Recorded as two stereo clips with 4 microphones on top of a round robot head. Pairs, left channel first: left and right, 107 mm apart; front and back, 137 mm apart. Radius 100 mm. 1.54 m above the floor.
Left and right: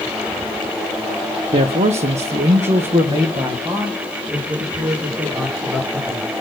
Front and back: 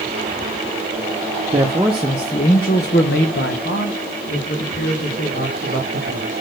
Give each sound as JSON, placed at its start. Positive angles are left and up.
{"t": 1.5, "sound": "a man speaking", "azimuth_deg": -120, "distance_m": 0.8}